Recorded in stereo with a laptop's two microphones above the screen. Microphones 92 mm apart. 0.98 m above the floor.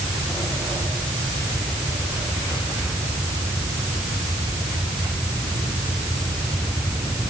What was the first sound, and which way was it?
Only background noise.